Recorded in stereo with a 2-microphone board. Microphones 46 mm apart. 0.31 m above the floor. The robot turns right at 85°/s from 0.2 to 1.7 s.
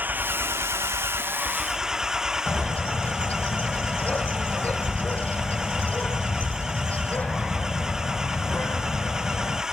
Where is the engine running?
140° right; by 9.7 s 15° right.